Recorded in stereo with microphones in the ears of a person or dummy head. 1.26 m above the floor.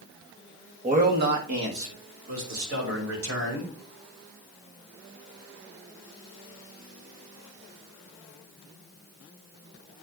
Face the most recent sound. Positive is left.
turn(degrees=-85)